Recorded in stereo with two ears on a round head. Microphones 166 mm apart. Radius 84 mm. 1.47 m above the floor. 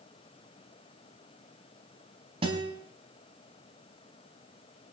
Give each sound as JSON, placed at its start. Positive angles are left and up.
{"t": 2.4, "sound": "a guitar", "side_deg": -30, "distance_m": 3.0}